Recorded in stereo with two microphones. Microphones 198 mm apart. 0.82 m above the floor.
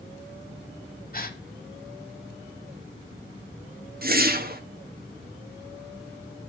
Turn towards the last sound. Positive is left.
turn(degrees=-50)  # may be behind; listen again after turning